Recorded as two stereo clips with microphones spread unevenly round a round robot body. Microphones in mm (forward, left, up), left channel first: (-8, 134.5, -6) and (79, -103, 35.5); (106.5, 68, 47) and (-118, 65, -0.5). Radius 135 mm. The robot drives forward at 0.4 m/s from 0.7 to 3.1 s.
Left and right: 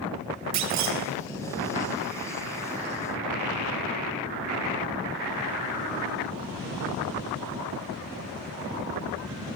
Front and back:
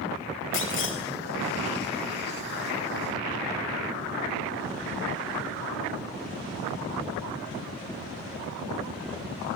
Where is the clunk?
50° right, 4 m.